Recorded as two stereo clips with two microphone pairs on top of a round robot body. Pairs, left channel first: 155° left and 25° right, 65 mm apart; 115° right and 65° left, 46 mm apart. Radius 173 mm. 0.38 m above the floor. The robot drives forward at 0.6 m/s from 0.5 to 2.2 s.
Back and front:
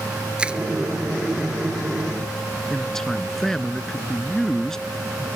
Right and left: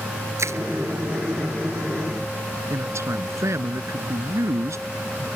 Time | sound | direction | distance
0.4 | crushing | 50° left | ?
2.7 | a man speaking | 70° left | ?